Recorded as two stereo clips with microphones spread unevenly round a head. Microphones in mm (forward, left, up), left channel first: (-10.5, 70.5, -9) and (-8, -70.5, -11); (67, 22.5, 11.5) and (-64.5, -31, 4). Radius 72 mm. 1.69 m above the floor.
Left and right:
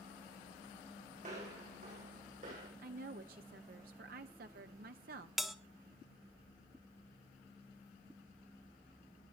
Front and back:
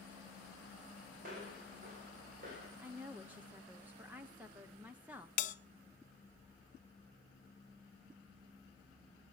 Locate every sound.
1.2 s footsteps: 125° right, 5.5 m; by 2.7 s 130° right, 7 m
2.8 s a woman speaking: 80° right, 0.8 m
5.4 s a bell: straight ahead, 0.9 m